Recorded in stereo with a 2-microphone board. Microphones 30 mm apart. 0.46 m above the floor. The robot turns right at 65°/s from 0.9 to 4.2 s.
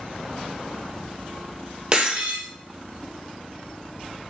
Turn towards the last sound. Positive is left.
turn(degrees=0)